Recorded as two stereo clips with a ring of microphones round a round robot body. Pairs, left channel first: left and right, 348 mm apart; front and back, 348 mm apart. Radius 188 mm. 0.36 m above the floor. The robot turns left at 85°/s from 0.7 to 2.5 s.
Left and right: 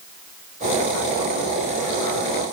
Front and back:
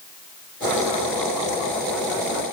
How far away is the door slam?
I don't hear a door slam.